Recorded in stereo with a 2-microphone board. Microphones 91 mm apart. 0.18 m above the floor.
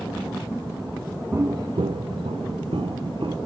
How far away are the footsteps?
About 0.7 m.